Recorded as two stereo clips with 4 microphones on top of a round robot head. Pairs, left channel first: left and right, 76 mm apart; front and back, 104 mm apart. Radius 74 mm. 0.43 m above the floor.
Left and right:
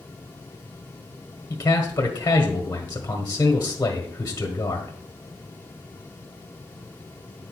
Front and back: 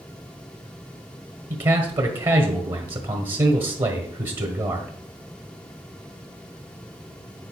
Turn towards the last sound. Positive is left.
turn(degrees=140)